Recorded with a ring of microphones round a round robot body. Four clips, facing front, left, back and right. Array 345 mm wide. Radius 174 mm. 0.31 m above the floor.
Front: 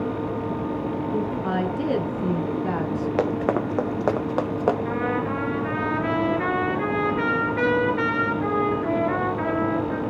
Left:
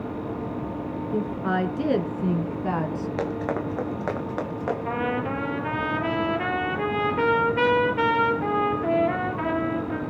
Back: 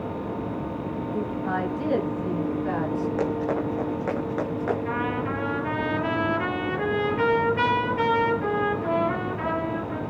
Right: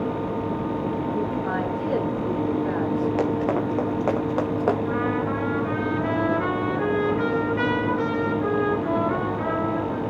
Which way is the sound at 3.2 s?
5° right.